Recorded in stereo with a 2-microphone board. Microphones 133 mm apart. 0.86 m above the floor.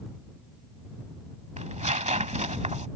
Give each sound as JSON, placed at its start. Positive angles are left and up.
{"t": 1.6, "sound": "tearing paper", "side_deg": -60}